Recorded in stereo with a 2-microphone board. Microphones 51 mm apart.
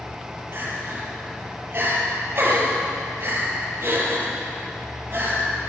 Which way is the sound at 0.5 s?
40° right (ahead or behind).